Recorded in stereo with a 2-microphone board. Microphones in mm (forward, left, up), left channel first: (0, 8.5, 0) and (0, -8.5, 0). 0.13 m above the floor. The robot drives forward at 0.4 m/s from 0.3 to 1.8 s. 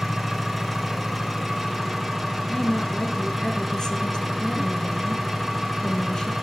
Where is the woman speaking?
50° left (ahead or behind), 2.0 m.